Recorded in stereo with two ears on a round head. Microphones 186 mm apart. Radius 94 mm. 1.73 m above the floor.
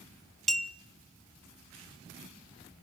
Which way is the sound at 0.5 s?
Centre (ahead or behind).